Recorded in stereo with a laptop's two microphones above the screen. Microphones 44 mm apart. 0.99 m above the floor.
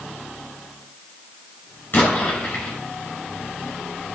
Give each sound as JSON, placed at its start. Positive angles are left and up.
{"t": 1.9, "sound": "an explosion", "side_deg": 45, "distance_m": 7.0}